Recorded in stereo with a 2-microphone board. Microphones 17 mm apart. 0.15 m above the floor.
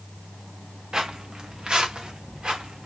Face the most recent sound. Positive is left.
turn(degrees=-75)  # may be behind; listen again after turning